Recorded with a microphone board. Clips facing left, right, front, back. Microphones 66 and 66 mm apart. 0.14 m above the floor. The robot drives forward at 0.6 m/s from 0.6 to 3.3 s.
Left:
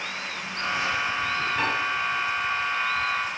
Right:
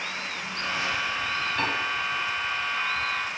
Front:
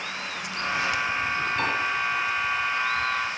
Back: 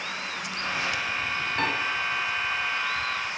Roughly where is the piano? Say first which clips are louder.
Left 1 dB, back 2 dB; behind.